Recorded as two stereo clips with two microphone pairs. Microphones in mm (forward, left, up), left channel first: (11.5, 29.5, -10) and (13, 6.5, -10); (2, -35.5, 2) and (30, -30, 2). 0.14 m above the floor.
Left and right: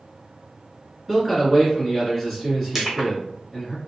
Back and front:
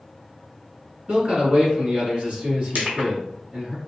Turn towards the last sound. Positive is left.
turn(degrees=-10)